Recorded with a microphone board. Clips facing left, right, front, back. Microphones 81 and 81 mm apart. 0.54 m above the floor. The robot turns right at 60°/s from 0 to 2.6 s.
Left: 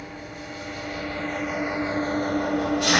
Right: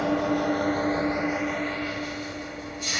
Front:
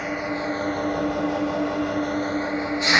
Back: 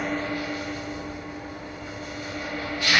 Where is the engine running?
90° right, 0.9 m; by 3.0 s 70° left, 0.9 m.